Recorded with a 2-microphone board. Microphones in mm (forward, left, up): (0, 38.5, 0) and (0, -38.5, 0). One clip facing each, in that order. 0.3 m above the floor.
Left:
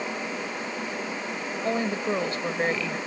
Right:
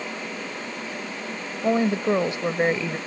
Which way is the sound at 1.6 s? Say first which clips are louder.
Right 6 dB; 20° right (ahead or behind).